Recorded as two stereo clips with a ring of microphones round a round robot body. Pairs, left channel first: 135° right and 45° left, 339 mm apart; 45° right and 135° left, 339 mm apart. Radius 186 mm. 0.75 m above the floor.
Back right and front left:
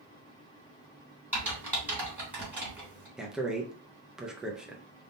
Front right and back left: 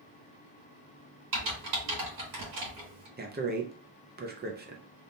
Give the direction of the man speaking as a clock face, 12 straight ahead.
8 o'clock.